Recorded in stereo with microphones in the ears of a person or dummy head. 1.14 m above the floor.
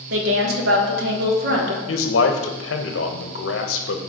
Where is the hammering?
I don't hear hammering.